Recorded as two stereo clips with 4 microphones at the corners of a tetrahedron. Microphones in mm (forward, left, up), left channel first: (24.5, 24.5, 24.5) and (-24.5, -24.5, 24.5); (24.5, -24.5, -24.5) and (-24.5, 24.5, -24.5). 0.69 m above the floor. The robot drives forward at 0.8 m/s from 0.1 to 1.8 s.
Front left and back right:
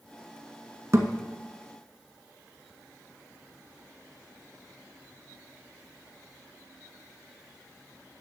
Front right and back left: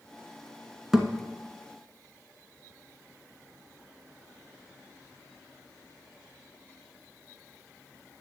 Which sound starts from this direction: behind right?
A thud, at 0.9 s.